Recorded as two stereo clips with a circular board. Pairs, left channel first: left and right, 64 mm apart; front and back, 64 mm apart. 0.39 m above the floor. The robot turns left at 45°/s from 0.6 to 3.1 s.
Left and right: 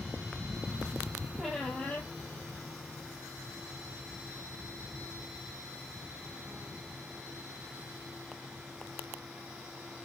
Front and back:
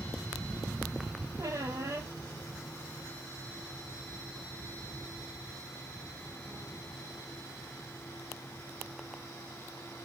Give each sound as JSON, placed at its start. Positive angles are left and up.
{"t": 1.4, "sound": "a squeak", "azimuth_deg": -175, "distance_m": 0.7}